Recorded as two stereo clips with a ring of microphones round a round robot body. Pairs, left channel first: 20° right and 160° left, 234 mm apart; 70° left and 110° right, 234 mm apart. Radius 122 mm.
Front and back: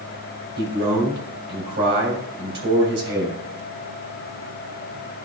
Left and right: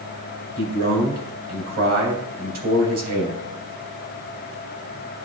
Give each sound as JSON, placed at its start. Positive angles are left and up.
{"t": 0.6, "sound": "a man speaking", "azimuth_deg": -160, "distance_m": 3.0}